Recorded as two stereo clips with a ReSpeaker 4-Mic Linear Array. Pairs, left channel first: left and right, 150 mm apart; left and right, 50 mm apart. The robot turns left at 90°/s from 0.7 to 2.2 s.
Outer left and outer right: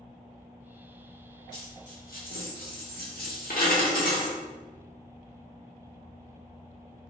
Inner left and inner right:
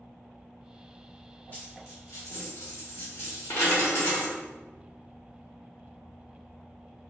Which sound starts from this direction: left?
A dropped coin, at 1.5 s.